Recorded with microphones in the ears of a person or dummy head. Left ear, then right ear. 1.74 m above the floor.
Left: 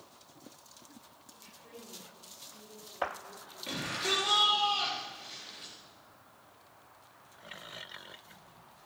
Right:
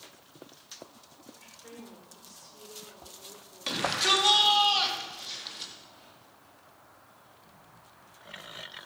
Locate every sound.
1.3 s a woman speaking: 50° right (ahead or behind), 7.5 m
3.7 s a shout: 40° right (ahead or behind), 4.5 m